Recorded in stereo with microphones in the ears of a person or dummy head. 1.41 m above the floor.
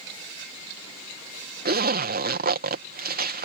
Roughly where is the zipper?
Right.